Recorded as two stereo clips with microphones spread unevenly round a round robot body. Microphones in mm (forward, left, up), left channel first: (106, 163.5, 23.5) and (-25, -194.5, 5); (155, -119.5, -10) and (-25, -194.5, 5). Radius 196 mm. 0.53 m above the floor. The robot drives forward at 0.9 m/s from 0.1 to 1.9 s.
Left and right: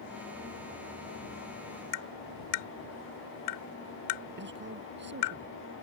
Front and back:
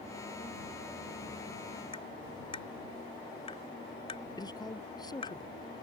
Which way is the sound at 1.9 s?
90° left.